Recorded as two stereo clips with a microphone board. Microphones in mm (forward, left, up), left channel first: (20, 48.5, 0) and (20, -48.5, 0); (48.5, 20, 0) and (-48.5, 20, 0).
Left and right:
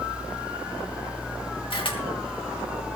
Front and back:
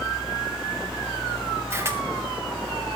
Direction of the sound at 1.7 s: 120° left.